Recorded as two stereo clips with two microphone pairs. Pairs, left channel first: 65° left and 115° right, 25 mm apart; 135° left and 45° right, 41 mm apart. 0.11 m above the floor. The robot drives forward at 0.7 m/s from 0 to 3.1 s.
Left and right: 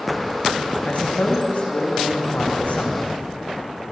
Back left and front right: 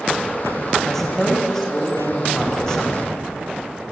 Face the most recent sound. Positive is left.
turn(degrees=65)